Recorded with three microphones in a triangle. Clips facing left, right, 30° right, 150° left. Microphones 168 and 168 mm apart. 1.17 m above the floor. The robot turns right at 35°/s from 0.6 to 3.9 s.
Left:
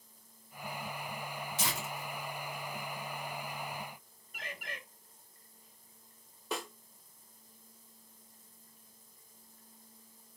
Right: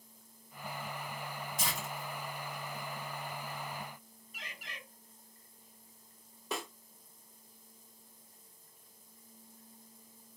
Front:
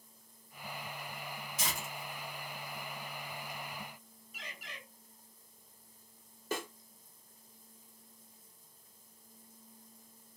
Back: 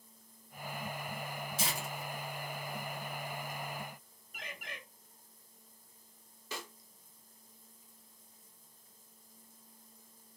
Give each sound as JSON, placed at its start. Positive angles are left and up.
{"t": 1.6, "sound": "tearing paper", "azimuth_deg": 90, "distance_m": 1.4}
{"t": 4.3, "sound": "a bird", "azimuth_deg": 120, "distance_m": 0.7}
{"t": 6.5, "sound": "a snare drum", "azimuth_deg": 0, "distance_m": 0.5}